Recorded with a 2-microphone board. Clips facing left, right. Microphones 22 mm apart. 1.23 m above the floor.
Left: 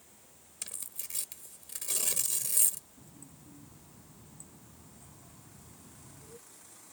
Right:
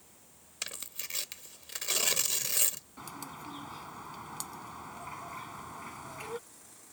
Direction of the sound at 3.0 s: 70° right (ahead or behind).